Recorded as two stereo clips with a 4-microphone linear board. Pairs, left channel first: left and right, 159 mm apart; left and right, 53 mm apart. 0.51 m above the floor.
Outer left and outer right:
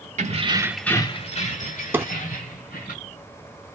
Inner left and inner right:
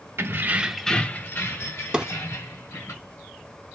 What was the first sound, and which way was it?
Keys jangling, 55° right (ahead or behind).